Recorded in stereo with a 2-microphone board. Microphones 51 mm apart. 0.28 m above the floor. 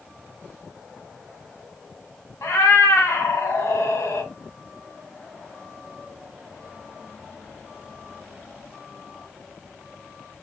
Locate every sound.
2.4 s a cat meowing: 60° left (ahead or behind), 1.3 m